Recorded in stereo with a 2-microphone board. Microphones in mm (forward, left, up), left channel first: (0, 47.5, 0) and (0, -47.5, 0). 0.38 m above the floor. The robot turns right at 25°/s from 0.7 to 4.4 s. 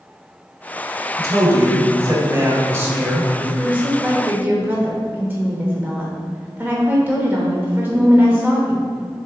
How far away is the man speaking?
About 1.8 m.